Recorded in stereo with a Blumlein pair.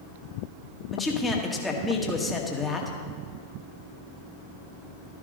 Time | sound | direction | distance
0.9 | a man speaking | 10° left | 1.9 m